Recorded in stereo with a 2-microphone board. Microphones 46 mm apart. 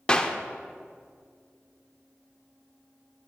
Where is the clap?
20° left (ahead or behind), 0.6 m.